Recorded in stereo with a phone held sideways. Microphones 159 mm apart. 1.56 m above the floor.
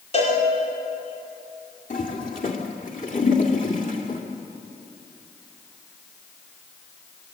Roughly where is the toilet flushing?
Left.